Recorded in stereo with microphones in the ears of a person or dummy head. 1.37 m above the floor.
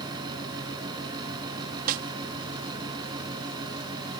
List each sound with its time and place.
0.0 s a fan: 20° right (ahead or behind)
1.9 s a snare drum: 50° right (ahead or behind)